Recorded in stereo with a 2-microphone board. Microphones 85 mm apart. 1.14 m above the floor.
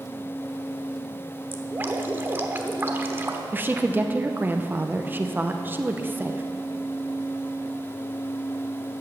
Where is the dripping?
25° right (ahead or behind), 1.1 m.